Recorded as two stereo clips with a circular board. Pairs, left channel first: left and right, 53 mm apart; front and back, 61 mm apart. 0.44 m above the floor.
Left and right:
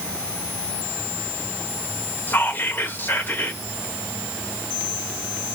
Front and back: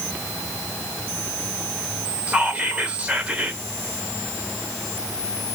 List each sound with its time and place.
2.3 s whispering: 115° left, 1.2 m